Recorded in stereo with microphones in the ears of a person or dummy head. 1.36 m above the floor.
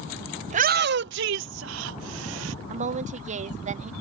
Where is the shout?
35° right (ahead or behind); by 2.5 s 75° right (ahead or behind).